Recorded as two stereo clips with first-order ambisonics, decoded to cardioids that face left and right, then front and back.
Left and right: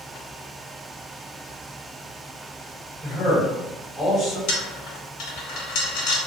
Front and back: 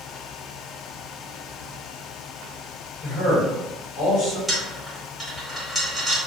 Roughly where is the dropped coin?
Left.